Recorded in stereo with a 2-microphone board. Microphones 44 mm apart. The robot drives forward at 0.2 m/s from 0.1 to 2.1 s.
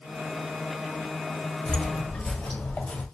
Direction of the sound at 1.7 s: 25° left (ahead or behind).